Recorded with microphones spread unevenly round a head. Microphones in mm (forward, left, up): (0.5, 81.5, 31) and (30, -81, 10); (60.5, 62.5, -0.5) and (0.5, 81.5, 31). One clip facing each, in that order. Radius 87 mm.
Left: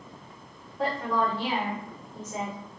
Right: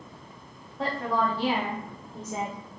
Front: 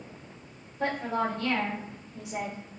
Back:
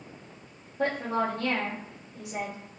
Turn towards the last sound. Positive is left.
turn(degrees=-95)